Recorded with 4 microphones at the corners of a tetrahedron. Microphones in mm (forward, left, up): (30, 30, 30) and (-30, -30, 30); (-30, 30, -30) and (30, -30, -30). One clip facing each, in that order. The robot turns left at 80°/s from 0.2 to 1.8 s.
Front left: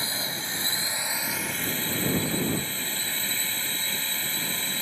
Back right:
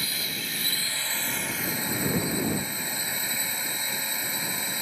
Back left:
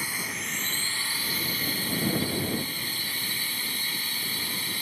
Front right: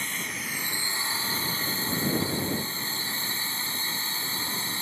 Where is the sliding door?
I don't hear a sliding door.